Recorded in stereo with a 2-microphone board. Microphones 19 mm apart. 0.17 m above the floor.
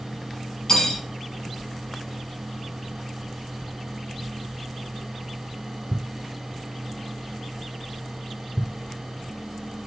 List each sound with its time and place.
0.7 s cutlery clinking: 35° left (ahead or behind), 0.7 m